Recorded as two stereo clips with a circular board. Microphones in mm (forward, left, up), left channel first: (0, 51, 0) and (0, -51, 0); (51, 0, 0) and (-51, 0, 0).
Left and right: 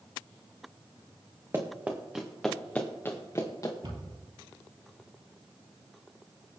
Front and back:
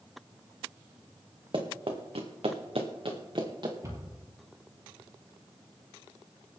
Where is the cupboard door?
125° right, 4 m.